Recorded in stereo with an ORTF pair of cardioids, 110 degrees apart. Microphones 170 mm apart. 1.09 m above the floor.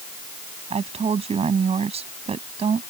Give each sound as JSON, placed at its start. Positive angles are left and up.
{"t": 0.7, "sound": "a woman speaking", "azimuth_deg": -40}